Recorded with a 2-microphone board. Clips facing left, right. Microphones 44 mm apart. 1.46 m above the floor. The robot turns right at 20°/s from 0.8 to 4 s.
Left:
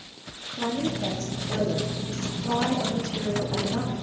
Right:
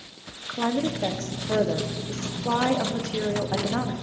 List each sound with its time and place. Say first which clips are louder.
0.5 s a woman speaking: right 2 dB; 115° right, 0.8 m; by 3.9 s 50° right, 0.8 m